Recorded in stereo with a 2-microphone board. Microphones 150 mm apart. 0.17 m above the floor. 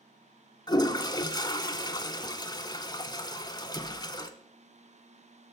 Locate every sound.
0.7 s a toilet flushing: 30° left (ahead or behind), 0.6 m